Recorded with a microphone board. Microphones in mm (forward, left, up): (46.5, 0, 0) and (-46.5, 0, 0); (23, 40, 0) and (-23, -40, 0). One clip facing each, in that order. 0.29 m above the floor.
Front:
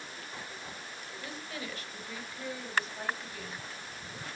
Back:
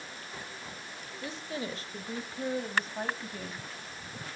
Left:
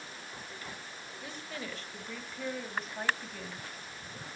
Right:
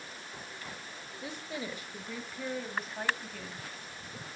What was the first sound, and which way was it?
A woman speaking, 155° right.